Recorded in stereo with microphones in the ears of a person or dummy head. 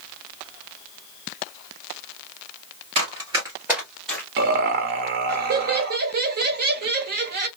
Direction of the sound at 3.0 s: 35° right (ahead or behind).